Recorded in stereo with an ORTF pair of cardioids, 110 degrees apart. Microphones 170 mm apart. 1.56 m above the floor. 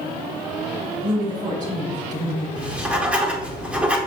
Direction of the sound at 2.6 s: 10° right.